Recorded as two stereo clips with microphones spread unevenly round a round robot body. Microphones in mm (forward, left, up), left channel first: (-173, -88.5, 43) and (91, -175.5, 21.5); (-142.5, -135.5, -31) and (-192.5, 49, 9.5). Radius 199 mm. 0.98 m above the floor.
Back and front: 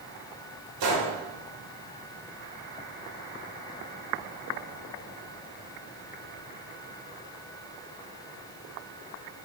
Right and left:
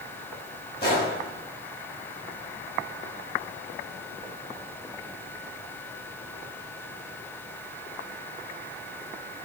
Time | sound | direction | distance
0.8 | a gunshot | straight ahead | 1.4 m